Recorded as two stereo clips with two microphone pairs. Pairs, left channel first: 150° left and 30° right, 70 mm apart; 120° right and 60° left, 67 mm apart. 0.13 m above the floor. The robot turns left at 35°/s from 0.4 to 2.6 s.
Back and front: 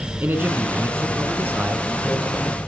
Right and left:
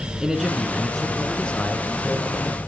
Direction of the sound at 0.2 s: 15° right.